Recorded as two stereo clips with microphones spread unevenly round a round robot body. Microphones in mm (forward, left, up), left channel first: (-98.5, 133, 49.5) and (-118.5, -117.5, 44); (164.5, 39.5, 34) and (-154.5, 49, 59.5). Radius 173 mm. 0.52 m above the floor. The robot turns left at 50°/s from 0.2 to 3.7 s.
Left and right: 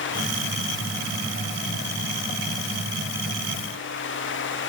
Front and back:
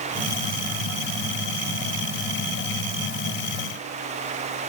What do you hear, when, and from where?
Only background noise.